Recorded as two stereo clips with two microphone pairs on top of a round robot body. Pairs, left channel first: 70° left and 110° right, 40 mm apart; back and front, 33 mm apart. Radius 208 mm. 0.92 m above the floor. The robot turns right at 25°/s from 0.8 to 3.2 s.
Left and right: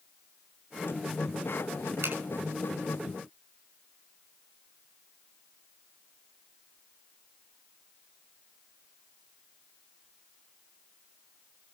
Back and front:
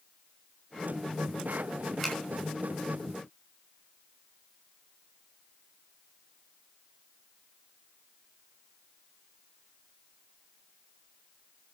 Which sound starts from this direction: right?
A finger snap, at 2.0 s.